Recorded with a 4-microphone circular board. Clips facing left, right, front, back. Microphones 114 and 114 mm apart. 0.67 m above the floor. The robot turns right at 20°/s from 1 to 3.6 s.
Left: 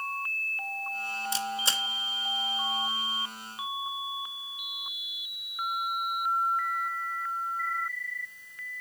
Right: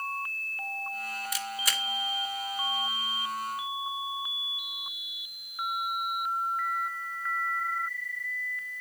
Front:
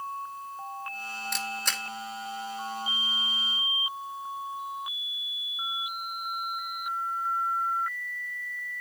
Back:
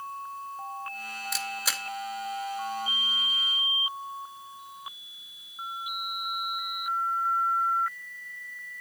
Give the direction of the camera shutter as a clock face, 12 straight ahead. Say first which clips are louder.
Left 4 dB, even; 9 o'clock.